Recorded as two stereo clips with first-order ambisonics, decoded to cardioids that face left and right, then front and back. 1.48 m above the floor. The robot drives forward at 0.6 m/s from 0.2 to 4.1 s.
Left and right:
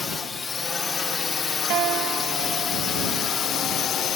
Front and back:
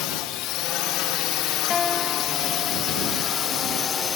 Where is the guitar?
60° right; by 3.0 s 120° right.